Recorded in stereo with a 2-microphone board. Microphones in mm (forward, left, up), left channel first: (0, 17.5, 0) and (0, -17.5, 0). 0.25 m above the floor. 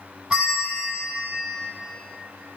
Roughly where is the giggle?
No giggle in this recording.